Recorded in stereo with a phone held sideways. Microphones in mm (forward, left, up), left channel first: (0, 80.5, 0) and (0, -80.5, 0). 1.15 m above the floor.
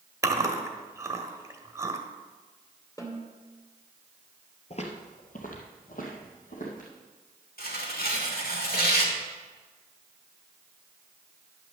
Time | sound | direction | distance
0.2 | chewing | 20° right (ahead or behind) | 1.2 m
3.0 | a snare drum | 20° left (ahead or behind) | 2 m
4.7 | footsteps | 40° left (ahead or behind) | 1.5 m
7.6 | tearing paper | 70° left (ahead or behind) | 1.9 m